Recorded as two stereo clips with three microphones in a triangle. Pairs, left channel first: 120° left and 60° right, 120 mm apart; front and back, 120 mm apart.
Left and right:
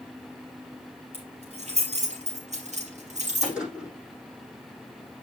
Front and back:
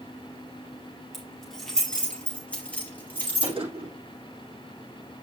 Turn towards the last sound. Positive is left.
turn(degrees=-140)